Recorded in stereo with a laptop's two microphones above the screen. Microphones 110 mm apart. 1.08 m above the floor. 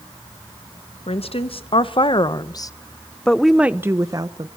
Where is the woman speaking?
65° left (ahead or behind), 1.6 m; by 4.5 s 45° right (ahead or behind), 0.9 m.